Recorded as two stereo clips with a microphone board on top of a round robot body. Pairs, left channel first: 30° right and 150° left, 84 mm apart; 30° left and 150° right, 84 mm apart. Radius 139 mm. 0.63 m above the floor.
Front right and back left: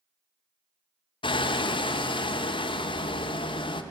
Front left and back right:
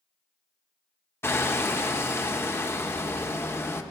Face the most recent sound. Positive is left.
turn(degrees=-35)